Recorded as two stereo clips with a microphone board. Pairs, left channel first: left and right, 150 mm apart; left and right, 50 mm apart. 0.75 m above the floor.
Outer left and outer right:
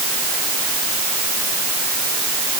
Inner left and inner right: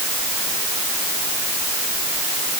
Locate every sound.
Only background noise.